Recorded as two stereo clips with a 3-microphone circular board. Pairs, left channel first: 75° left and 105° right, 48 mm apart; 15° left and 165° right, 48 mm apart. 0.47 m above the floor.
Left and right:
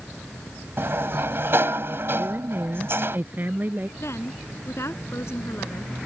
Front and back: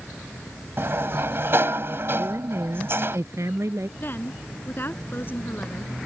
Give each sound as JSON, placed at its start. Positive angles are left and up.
{"t": 0.8, "sound": "a sliding door", "azimuth_deg": -135}
{"t": 2.2, "sound": "a woman speaking", "azimuth_deg": -150}
{"t": 4.0, "sound": "a woman speaking", "azimuth_deg": 60}